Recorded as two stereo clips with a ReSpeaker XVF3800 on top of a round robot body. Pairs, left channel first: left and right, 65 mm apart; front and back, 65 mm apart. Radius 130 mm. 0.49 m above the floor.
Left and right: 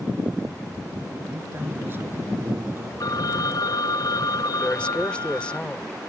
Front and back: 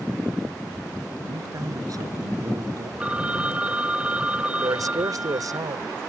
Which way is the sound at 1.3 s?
150° right.